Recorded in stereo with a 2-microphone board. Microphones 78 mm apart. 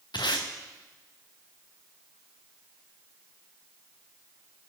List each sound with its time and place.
0.1 s tape being pulled: 85° left, 2 m